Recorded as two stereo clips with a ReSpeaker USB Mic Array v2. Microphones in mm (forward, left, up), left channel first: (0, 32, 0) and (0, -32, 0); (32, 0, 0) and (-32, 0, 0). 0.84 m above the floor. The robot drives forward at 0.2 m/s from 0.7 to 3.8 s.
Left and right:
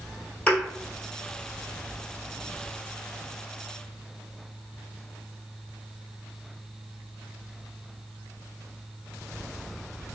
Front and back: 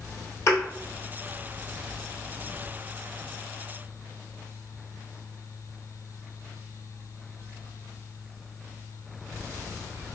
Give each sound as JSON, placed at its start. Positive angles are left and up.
{"t": 0.5, "sound": "a thud", "azimuth_deg": 25, "distance_m": 1.2}